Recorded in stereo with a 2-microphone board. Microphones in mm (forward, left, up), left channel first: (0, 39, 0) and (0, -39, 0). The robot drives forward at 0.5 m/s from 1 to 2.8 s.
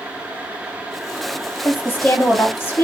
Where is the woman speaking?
30° left (ahead or behind), 1.1 m.